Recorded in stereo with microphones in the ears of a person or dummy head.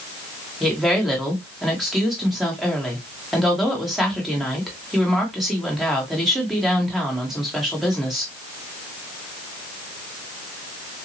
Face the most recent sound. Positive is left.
turn(degrees=0)  # may be behind; listen again after turning